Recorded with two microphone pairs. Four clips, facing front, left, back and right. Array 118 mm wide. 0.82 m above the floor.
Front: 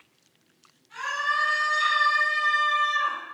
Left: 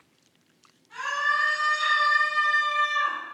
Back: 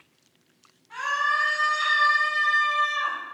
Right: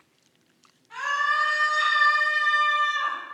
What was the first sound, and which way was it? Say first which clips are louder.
A scream: right 2 dB, back 2 dB; 140° right.